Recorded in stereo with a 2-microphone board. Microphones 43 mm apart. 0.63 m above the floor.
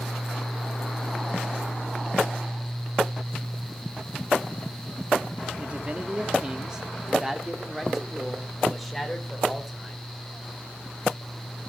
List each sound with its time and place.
5.6 s a man speaking: 30° right (ahead or behind), 1.2 m; by 10.0 s 5° left (ahead or behind), 2.5 m